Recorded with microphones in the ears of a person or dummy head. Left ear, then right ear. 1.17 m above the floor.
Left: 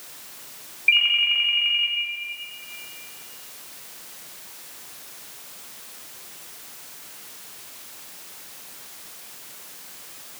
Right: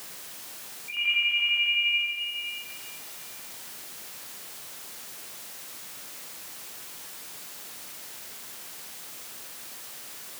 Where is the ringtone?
75° left (ahead or behind), 6.5 m.